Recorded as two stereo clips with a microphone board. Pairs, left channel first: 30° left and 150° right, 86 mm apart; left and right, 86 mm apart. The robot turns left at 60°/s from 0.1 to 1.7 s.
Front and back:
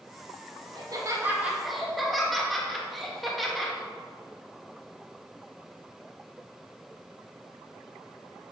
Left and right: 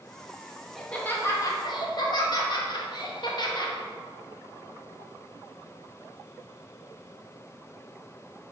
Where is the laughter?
175° left, 2 m; by 3.8 s 120° left, 2 m.